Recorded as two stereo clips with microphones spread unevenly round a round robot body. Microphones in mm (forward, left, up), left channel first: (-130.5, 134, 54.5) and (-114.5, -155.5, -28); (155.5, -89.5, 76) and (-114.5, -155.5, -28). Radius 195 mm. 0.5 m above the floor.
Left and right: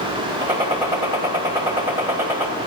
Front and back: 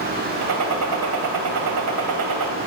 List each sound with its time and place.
0.4 s a gunshot: 165° right, 2.5 m